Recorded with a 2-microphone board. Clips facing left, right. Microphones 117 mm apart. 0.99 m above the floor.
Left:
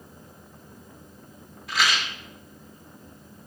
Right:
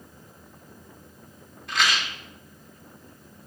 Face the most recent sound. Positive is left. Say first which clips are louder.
# even
turn(degrees=5)  # may be behind; listen again after turning